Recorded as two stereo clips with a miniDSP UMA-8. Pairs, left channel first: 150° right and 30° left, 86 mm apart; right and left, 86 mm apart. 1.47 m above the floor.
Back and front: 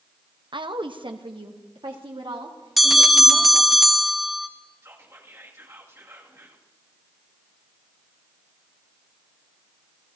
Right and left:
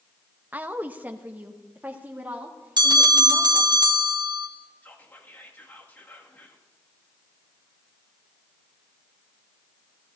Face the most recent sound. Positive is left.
turn(degrees=-25)